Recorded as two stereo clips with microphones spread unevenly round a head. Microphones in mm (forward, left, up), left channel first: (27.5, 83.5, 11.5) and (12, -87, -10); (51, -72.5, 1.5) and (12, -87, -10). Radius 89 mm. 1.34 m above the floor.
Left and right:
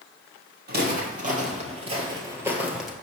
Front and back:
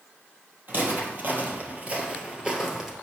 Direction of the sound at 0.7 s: 120° right.